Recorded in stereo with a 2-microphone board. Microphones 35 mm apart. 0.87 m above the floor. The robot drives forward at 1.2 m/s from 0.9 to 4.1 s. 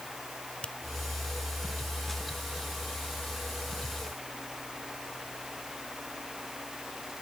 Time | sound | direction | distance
0.6 | a finger snap | 30° left (ahead or behind) | ?